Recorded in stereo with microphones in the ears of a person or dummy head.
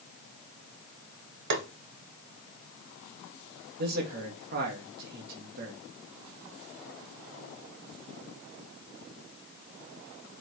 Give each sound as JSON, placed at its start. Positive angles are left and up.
{"t": 1.5, "sound": "tapping", "side_deg": -65, "distance_m": 1.3}
{"t": 3.8, "sound": "a man speaking", "side_deg": -50, "distance_m": 1.9}